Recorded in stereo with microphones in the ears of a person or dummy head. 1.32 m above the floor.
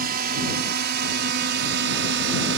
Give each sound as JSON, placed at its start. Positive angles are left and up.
{"t": 0.0, "sound": "a drone", "side_deg": -55}